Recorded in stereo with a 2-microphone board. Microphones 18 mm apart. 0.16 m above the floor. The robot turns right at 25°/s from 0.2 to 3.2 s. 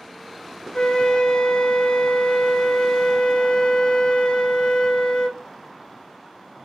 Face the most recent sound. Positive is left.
turn(degrees=120)